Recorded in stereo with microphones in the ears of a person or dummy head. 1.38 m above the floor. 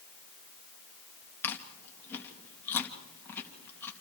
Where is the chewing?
20° left (ahead or behind), 2.5 m.